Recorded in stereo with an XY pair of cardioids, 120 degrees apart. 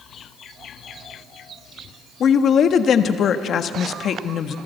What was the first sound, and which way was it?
A woman speaking, 50° left.